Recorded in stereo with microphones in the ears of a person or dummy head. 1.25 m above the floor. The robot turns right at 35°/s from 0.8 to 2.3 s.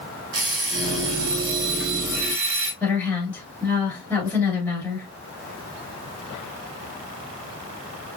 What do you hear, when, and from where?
0.3 s an alarm clock: 95° right, 1.7 m; by 2.7 s 45° right, 1.7 m
2.8 s a woman speaking: 10° left (ahead or behind), 3 m